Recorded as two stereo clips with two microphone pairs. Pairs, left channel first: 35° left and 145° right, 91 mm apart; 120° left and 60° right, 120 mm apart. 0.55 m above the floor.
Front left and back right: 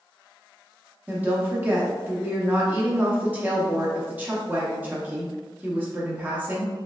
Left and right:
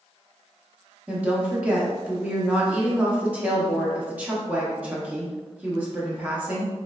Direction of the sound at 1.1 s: 105° right.